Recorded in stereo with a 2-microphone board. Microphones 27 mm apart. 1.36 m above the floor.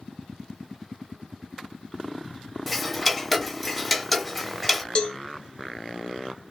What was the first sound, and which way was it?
Ticking, 5° left (ahead or behind).